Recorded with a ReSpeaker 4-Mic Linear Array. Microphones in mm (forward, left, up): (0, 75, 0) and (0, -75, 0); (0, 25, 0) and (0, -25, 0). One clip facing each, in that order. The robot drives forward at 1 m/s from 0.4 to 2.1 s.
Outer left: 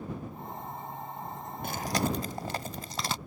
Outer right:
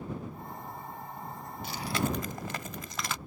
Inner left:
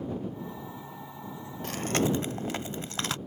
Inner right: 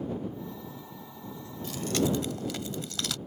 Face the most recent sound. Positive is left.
turn(degrees=35)  # may be behind; listen again after turning